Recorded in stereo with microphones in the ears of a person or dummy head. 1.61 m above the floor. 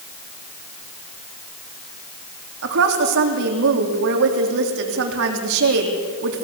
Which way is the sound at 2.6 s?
65° right (ahead or behind).